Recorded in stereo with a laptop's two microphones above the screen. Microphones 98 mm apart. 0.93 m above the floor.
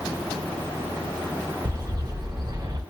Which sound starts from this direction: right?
A bird, at 1.6 s.